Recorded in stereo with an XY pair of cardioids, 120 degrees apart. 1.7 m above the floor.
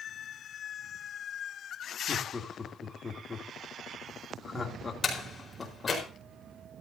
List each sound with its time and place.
2.1 s laughter: 30° left, 3 m
5.0 s a door slam: 25° left, 4.5 m